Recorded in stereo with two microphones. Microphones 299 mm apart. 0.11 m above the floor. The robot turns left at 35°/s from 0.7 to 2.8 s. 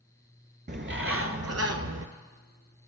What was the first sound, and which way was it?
A bird, 40° right.